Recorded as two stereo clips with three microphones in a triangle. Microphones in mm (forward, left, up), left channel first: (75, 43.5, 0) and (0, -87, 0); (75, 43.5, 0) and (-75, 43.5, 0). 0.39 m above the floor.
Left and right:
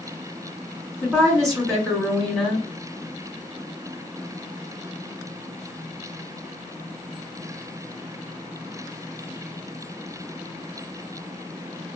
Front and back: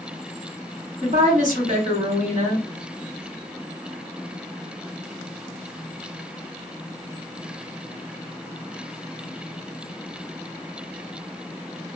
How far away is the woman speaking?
About 2.5 m.